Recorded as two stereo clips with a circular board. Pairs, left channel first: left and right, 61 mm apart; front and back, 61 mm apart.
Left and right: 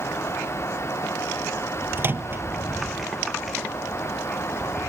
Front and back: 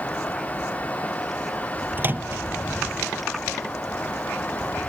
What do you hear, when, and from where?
2.0 s a microwave: 130° right